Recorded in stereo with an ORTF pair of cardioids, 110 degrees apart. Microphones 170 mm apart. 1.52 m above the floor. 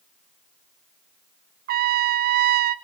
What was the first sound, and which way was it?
A trumpet, 60° right.